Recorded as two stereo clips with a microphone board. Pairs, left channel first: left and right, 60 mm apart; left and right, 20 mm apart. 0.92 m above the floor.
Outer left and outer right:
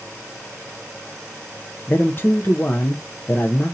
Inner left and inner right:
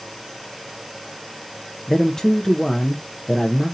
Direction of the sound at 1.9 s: 35° left (ahead or behind).